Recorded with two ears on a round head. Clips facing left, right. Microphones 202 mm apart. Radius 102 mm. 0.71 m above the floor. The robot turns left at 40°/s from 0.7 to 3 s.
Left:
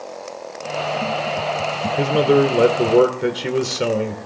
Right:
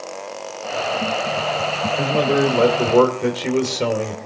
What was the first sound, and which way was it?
A man speaking, 50° left.